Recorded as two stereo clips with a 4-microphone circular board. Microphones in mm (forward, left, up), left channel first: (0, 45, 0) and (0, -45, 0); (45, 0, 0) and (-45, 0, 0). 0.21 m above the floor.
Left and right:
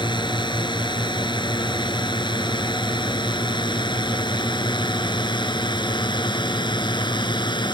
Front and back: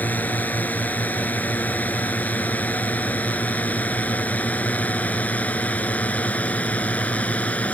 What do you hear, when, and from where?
0.0 s a drone: 70° left; by 7.8 s 75° left